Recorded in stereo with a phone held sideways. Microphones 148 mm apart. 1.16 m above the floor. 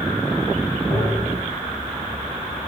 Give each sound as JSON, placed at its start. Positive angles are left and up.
{"t": 0.9, "sound": "tapping", "side_deg": -5, "distance_m": 1.2}